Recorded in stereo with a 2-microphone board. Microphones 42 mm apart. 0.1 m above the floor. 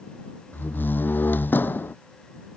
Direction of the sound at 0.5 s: 50° left (ahead or behind).